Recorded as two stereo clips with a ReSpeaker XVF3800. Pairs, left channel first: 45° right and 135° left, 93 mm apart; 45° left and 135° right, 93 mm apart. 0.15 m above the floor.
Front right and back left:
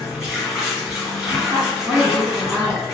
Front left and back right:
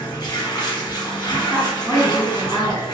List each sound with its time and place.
0.0 s running water: 50° left, 1.9 m
1.5 s a woman speaking: 145° left, 1.4 m